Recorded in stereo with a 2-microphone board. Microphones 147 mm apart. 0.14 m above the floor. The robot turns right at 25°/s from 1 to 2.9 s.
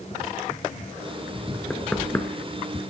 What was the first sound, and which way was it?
Knocking, 5° left (ahead or behind).